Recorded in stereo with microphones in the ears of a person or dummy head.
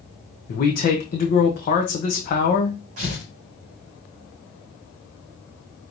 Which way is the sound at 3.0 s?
50° right (ahead or behind).